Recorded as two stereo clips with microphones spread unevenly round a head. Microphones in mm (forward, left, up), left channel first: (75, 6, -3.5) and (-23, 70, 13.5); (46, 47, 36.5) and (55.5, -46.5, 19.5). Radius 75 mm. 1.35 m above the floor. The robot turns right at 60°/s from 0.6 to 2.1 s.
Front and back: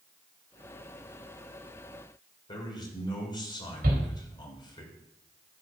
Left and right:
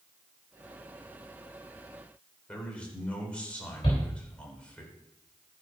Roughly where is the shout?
Behind left.